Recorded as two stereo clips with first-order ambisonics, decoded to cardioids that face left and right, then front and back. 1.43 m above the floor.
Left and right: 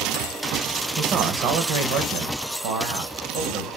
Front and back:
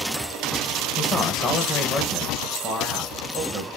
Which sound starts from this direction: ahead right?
A man speaking, at 1.0 s.